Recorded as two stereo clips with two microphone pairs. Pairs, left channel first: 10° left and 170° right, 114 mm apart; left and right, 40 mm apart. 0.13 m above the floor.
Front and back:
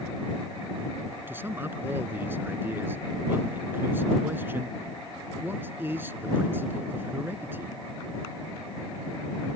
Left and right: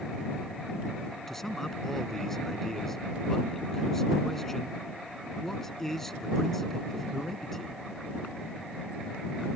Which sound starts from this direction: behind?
A man speaking, at 1.3 s.